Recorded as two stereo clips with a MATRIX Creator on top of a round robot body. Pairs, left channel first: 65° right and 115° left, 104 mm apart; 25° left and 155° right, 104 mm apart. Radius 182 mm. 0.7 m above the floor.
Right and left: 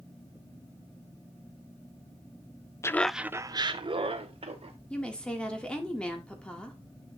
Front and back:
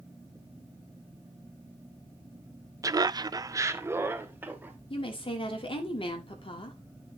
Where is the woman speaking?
10° left, 1.6 m.